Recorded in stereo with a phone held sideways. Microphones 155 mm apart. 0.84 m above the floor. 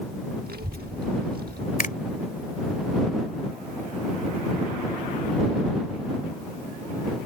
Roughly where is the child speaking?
Right.